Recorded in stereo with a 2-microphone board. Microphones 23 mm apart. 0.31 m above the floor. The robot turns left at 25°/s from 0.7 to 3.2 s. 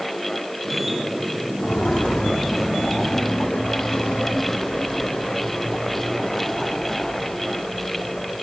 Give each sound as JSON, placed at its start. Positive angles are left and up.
{"t": 1.6, "sound": "footsteps", "side_deg": 35, "distance_m": 1.6}